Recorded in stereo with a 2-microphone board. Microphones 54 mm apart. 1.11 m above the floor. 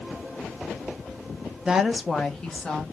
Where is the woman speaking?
15° right (ahead or behind), 0.5 m; by 2.8 s 15° left (ahead or behind), 1.5 m.